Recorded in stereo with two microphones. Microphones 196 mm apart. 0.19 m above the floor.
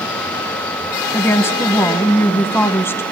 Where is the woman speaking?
10° left (ahead or behind), 1.2 m.